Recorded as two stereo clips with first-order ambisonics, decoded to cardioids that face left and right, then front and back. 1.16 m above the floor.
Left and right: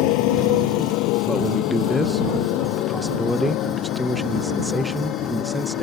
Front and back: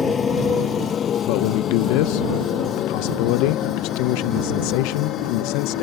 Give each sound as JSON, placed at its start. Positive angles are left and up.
{"t": 0.0, "sound": "a motorcycle", "azimuth_deg": 70}
{"t": 1.3, "sound": "a man speaking", "azimuth_deg": 0}